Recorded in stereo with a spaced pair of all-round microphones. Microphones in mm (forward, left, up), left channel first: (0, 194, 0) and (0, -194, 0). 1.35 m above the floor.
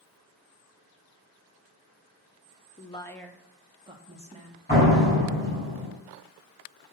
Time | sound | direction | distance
2.8 | a woman speaking | 20° left (ahead or behind) | 0.7 m
4.7 | a door slam | 25° left (ahead or behind) | 6 m